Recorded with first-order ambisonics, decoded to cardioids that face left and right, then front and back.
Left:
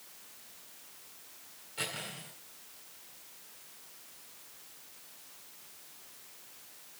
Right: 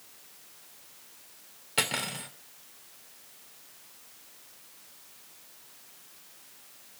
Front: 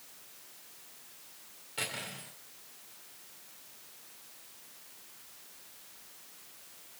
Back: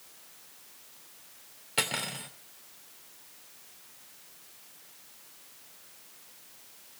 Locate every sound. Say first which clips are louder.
1.8 s cutlery clinking: right 9 dB, back 7 dB; 125° right, 2.5 m